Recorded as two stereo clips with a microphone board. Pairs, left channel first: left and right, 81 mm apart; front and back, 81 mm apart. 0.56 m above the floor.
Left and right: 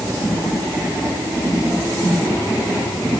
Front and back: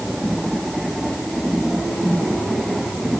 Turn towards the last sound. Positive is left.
No sound to turn to.